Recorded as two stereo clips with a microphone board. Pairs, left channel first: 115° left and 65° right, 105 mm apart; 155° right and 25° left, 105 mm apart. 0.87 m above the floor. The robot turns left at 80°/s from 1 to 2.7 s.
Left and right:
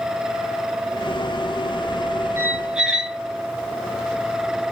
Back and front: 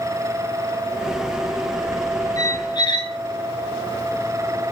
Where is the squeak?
120° right, 0.5 m; by 3.2 s 145° right, 0.5 m.